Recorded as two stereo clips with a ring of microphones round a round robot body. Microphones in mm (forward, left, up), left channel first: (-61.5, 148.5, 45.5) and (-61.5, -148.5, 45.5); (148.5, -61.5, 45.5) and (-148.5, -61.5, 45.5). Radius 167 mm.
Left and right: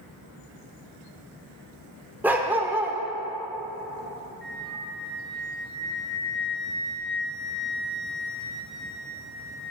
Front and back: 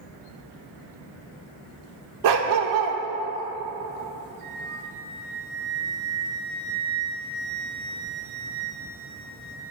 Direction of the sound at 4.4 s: 175° left.